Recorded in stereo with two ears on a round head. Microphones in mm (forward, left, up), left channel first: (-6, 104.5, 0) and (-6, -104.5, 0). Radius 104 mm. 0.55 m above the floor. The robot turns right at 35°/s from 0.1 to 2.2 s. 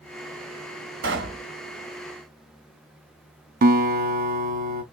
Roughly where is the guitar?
Right.